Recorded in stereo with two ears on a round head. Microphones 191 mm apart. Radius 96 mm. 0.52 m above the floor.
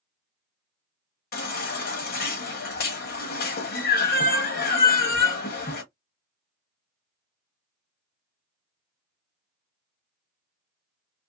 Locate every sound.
1.3 s a baby crying: 50° left (ahead or behind), 1.0 m